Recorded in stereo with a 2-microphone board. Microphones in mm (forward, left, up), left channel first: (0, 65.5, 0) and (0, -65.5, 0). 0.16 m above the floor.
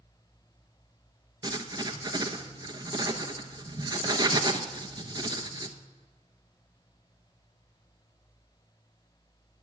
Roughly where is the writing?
Right.